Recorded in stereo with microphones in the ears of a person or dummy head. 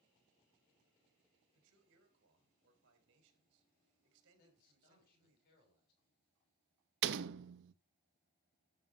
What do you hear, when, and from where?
1.5 s a man speaking: 70° right (ahead or behind), 4 m
4.4 s a man speaking: 55° left (ahead or behind), 5.5 m
7.0 s a door slam: 65° right (ahead or behind), 0.8 m